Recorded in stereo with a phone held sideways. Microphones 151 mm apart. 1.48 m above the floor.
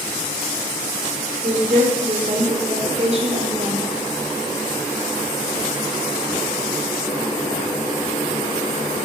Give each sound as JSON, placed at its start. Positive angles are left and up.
{"t": 1.4, "sound": "a woman speaking", "side_deg": -50, "distance_m": 5.5}